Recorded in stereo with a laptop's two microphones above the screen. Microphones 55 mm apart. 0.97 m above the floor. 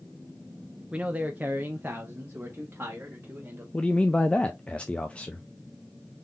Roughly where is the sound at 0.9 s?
Right.